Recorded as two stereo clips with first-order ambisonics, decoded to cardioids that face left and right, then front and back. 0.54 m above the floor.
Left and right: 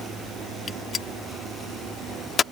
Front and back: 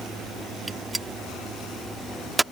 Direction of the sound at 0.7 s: 110° left.